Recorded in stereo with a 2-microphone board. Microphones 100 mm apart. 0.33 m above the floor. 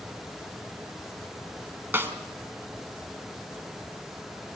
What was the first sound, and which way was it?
A snare drum, 20° right (ahead or behind).